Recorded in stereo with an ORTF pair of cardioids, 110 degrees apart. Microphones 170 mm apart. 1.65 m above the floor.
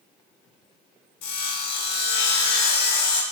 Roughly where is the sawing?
Left.